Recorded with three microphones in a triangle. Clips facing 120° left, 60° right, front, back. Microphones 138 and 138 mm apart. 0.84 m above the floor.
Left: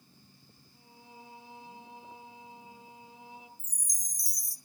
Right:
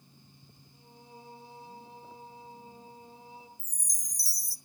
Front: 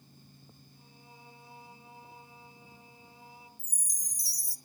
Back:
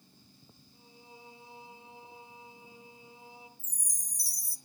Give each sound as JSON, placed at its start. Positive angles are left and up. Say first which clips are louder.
{"t": 0.7, "sound": "singing", "louder": "right 1 dB, back 5 dB", "azimuth_deg": -115, "distance_m": 8.5}
{"t": 3.6, "sound": "a chime", "louder": "right 1 dB, front 1 dB", "azimuth_deg": 55, "distance_m": 0.9}